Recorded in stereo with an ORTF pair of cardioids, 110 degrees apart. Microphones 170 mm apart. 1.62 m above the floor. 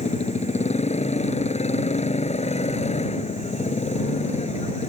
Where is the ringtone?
No ringtone in this recording.